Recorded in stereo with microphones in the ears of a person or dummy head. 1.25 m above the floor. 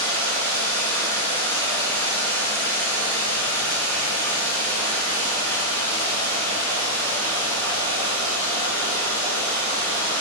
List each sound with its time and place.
0.0 s running water: 15° left (ahead or behind), 0.8 m